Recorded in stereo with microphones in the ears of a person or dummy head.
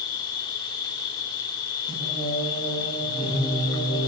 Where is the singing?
35° right (ahead or behind), 7 m.